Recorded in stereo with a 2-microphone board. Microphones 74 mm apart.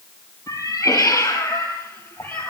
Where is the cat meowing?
45° left (ahead or behind), 3.5 m; by 2.5 s 25° left (ahead or behind), 3.5 m.